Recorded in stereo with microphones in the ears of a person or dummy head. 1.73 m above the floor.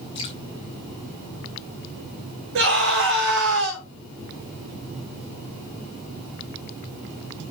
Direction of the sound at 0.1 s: 30° left (ahead or behind).